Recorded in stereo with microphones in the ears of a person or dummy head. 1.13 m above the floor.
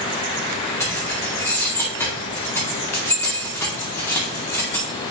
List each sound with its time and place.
0.8 s keys jangling: 10° left (ahead or behind), 2 m